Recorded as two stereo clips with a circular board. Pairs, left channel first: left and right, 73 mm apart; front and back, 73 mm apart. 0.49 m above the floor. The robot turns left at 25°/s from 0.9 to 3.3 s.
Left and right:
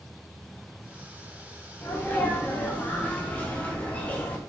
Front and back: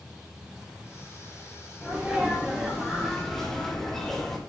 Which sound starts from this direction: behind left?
A sneeze, at 1.8 s.